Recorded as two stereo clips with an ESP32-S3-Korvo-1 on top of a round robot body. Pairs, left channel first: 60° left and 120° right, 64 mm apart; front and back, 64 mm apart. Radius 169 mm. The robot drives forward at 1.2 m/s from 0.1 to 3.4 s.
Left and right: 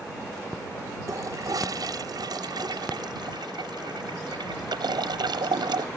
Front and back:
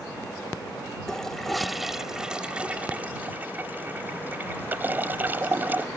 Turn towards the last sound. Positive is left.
turn(degrees=-115)